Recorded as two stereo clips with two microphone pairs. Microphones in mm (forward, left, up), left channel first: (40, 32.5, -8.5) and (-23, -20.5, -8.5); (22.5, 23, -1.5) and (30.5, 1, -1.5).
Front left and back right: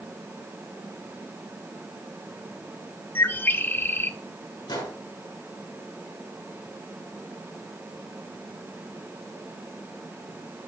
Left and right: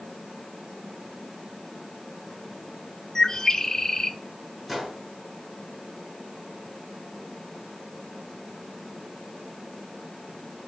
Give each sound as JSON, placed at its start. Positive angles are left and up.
{"t": 3.1, "sound": "a bird", "azimuth_deg": 70, "distance_m": 0.6}
{"t": 4.7, "sound": "a gunshot", "azimuth_deg": 20, "distance_m": 4.0}